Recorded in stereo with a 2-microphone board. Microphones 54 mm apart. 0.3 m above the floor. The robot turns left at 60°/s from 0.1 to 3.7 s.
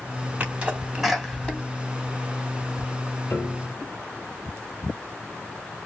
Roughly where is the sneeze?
Right.